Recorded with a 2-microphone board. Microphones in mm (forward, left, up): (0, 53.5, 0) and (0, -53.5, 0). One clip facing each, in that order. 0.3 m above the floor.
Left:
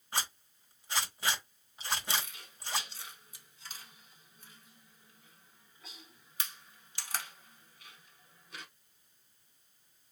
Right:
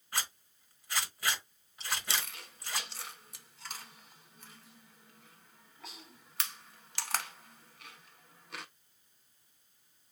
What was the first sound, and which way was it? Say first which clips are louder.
A zipper: left 2 dB; 25° left (ahead or behind).